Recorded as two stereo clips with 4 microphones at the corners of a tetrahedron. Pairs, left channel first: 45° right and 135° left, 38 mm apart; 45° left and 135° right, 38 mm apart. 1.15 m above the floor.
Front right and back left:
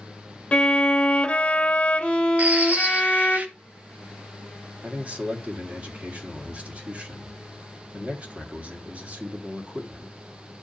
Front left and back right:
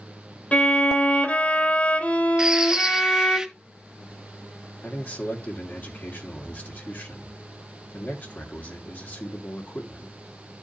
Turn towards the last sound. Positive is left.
turn(degrees=80)